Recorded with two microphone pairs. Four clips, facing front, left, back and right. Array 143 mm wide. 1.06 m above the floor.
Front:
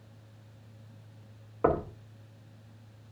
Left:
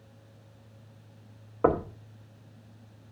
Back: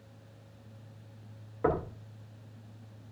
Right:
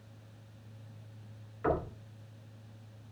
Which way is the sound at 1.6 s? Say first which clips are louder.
Left 7 dB, front 3 dB; 70° left.